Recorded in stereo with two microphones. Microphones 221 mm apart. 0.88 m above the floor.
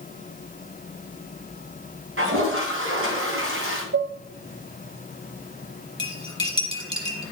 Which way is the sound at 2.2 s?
70° right (ahead or behind).